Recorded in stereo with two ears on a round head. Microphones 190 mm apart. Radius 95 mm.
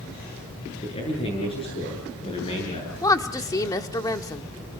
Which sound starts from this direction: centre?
A woman speaking, at 3.0 s.